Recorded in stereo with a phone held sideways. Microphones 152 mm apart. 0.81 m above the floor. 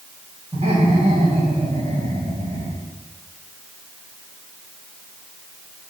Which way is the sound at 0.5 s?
45° right (ahead or behind).